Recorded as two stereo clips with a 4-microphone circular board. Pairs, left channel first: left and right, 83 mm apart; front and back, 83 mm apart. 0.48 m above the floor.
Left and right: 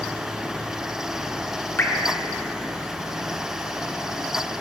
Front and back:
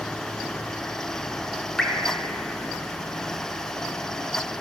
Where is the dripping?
75° left, 0.6 m.